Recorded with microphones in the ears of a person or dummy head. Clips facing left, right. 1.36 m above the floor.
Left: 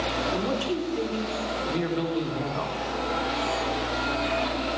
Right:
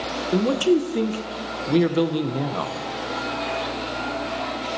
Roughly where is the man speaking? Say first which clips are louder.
Right 12 dB; right.